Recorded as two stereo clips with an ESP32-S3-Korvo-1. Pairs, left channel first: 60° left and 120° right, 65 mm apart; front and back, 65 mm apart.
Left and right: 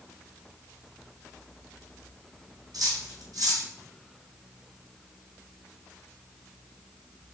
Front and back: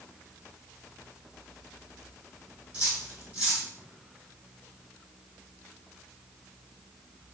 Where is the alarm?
I don't hear an alarm.